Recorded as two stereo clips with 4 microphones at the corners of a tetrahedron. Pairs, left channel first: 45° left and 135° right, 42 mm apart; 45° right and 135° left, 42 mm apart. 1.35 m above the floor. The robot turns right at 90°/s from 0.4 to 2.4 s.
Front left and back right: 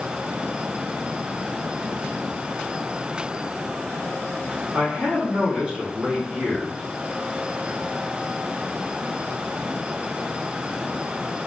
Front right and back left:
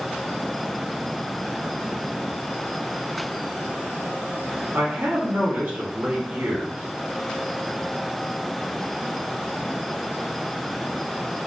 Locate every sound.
4.7 s a man speaking: 160° left, 1.3 m